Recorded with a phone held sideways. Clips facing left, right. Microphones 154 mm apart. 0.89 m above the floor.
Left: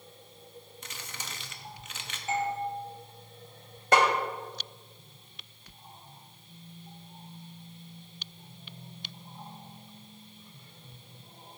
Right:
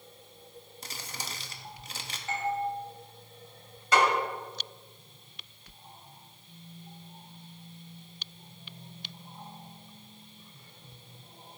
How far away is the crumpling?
About 1.1 m.